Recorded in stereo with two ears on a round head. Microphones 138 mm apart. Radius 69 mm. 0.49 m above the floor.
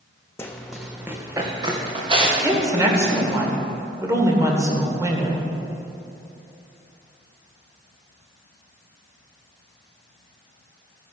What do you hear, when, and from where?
0.4 s running footsteps: 15° left (ahead or behind), 1.2 m; by 3.4 s 45° right (ahead or behind), 4.5 m
2.4 s a woman speaking: 20° right (ahead or behind), 1.8 m